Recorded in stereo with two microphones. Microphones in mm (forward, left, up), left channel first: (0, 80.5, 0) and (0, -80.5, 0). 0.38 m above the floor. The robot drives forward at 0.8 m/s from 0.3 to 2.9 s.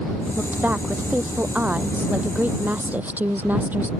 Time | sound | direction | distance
0.4 | a woman speaking | 10° right (ahead or behind) | ?